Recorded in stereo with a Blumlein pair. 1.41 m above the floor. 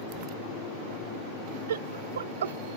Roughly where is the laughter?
Ahead right.